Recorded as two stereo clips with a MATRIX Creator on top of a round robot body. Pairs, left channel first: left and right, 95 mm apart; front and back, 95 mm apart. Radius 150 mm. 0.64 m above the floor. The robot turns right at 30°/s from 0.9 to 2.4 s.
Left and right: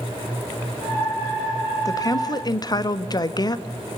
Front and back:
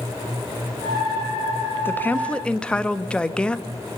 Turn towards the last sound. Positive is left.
turn(degrees=75)